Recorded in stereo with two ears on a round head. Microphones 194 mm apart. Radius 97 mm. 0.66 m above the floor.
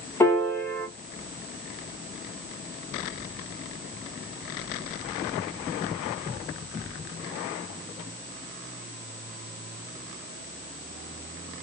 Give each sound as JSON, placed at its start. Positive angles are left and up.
{"t": 0.2, "sound": "a piano", "side_deg": 10, "distance_m": 0.8}